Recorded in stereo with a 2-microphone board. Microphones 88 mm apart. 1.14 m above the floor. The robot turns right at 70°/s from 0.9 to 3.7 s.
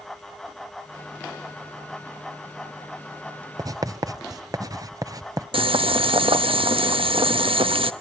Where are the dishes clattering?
No dishes clattering in this recording.